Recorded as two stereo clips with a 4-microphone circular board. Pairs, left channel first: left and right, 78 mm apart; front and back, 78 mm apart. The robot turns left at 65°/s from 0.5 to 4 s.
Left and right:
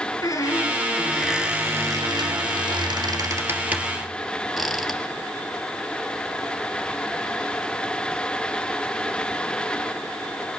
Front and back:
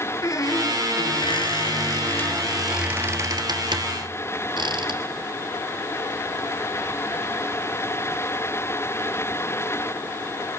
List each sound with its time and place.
0.2 s a squeak: 50° left, 1.5 m; by 5.0 s straight behind, 1.5 m